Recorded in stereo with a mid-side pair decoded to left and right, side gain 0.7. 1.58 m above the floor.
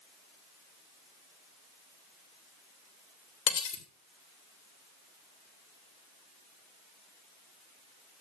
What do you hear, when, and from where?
3.5 s cutlery clinking: 65° left, 3 m